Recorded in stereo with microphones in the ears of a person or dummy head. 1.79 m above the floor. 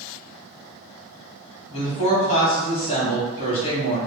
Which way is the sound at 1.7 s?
40° left (ahead or behind).